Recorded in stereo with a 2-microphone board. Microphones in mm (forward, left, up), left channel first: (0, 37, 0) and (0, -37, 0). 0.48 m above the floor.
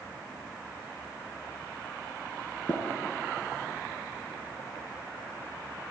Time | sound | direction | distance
2.7 | tapping | 65° right (ahead or behind) | 3 m